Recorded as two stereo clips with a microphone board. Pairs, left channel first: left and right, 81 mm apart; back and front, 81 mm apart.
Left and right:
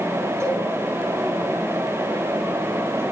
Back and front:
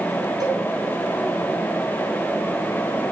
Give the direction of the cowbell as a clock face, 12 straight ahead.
1 o'clock.